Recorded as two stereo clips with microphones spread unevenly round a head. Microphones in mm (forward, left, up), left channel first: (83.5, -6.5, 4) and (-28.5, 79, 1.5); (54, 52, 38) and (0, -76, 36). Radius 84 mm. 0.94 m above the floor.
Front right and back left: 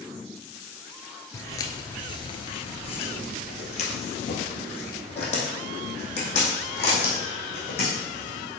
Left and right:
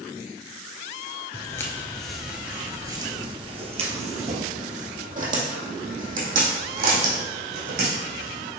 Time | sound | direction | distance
1.3 | footsteps | 20° left | 1.1 m